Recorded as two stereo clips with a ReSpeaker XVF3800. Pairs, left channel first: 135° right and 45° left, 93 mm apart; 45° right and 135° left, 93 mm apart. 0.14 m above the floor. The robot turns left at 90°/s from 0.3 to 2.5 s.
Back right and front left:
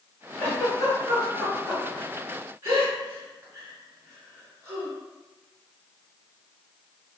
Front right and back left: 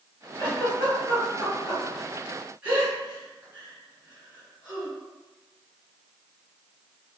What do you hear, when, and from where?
0.4 s a giggle: 100° right, 1.7 m; by 4.9 s 70° left, 1.7 m